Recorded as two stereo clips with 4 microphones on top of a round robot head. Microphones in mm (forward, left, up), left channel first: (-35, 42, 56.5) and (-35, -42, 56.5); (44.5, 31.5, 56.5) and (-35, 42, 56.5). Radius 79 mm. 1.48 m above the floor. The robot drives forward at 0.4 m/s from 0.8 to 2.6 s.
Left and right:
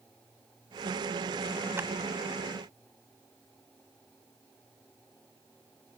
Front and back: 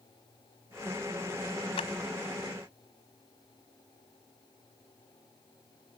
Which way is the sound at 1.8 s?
20° right.